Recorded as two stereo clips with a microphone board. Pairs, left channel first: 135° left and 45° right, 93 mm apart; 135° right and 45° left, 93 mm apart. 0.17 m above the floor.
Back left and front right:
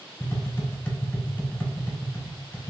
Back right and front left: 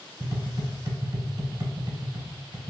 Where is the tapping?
75° left, 0.8 m.